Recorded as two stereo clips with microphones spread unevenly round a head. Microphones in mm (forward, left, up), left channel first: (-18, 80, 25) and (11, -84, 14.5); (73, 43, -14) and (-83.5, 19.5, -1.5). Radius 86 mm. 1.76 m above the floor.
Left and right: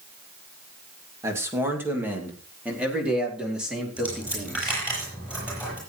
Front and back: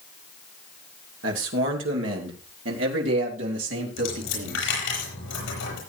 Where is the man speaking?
155° right, 2.5 m; by 4.8 s 170° right, 4.5 m.